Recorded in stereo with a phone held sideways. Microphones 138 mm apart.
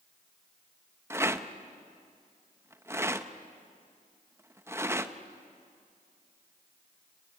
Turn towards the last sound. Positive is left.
turn(degrees=-20)  # may be behind; listen again after turning